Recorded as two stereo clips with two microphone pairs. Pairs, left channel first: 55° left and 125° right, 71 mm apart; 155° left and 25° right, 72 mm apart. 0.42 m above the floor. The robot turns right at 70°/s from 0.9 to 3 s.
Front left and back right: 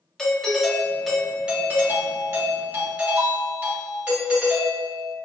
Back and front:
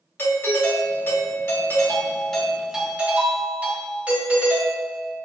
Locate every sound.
0.2 s a doorbell: 130° left, 1.4 m; by 5.2 s 80° right, 1.4 m